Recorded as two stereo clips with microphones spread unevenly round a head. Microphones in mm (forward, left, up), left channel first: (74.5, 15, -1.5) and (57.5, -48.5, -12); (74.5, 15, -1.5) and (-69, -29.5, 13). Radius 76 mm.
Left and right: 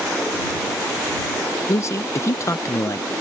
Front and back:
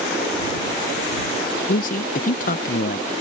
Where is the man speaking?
30° left.